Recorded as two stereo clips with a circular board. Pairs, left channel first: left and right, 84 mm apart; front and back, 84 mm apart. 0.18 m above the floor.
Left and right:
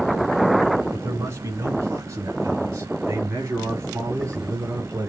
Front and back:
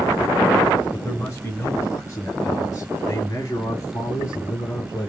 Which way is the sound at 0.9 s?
40° right.